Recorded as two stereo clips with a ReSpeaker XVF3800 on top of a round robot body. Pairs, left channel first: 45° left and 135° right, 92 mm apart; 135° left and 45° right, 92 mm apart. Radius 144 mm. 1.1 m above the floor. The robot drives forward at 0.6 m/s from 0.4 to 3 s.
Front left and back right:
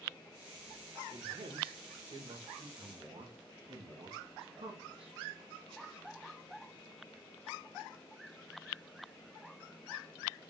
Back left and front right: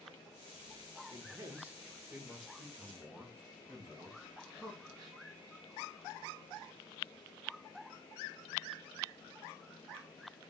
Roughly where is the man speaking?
Right.